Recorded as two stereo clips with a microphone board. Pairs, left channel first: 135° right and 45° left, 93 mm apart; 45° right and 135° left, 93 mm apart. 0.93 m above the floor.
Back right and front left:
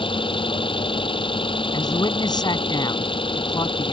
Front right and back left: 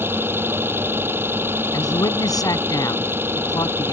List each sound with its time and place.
0.0 s an engine running: 160° right
1.7 s a man speaking: 95° right